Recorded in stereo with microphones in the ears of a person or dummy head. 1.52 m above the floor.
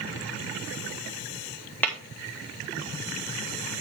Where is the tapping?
5° left (ahead or behind), 2.0 m.